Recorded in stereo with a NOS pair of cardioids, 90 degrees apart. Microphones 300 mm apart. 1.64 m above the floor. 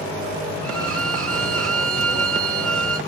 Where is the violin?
50° right, 2 m.